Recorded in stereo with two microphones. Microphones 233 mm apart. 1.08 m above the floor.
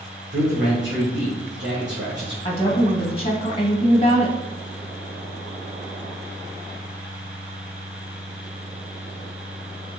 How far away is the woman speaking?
About 0.9 m.